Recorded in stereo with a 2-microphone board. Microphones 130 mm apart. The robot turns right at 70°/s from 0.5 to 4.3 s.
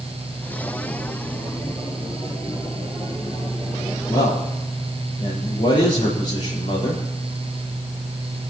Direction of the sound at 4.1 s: 35° left (ahead or behind).